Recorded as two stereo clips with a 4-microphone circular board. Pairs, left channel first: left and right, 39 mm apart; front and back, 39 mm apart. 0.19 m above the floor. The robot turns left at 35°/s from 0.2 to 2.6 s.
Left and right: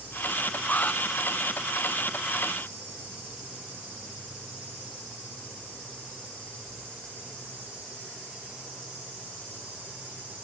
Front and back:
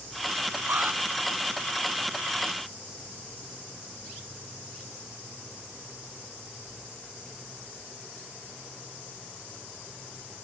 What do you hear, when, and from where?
0.7 s an alarm: 145° left; by 1.0 s 135° left